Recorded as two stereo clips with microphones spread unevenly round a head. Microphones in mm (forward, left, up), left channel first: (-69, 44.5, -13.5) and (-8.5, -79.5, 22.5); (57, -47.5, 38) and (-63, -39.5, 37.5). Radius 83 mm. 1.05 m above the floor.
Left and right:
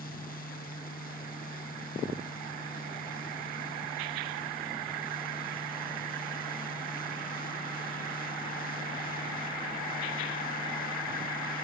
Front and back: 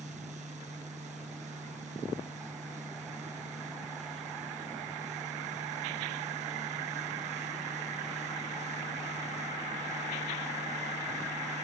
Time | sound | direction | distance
0.0 | a fan | 135° left | ?